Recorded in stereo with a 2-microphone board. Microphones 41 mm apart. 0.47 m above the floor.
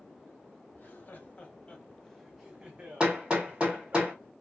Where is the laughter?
55° left (ahead or behind), 1.1 m; by 4.0 s 55° right (ahead or behind), 1.3 m.